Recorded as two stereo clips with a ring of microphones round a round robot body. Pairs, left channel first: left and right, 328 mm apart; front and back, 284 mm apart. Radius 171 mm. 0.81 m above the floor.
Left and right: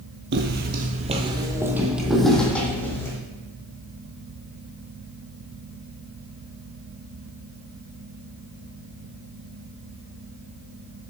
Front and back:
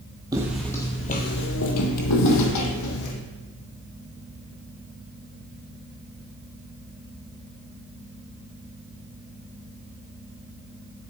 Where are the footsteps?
110° right, 0.9 m; by 3.1 s 10° left, 1.8 m.